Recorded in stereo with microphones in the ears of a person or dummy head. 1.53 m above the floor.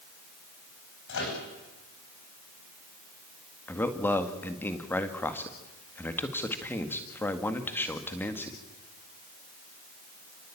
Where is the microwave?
65° left (ahead or behind), 9.5 m.